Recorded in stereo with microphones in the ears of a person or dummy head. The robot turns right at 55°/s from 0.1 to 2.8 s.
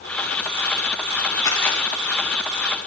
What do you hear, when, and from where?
1.4 s a camera shutter: 20° left (ahead or behind), 5.5 m; by 1.8 s centre (ahead or behind), 5.5 m